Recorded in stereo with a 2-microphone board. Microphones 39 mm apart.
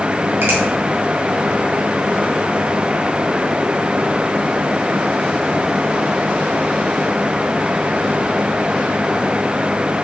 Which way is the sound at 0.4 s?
70° right (ahead or behind).